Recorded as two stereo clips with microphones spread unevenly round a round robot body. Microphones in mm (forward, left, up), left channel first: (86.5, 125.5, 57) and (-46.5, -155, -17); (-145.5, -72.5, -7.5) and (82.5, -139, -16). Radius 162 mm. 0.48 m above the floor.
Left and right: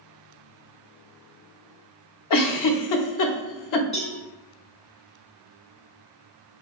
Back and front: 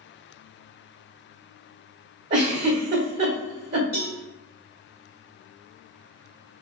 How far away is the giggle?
About 0.6 m.